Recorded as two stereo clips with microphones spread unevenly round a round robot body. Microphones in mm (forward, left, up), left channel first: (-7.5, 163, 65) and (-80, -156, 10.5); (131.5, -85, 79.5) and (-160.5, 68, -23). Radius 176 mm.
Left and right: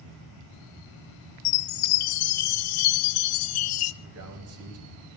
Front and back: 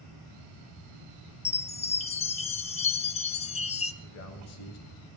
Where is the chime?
50° left, 0.6 m.